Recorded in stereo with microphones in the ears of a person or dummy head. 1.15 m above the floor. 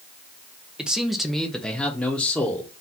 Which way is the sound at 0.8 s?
5° right (ahead or behind).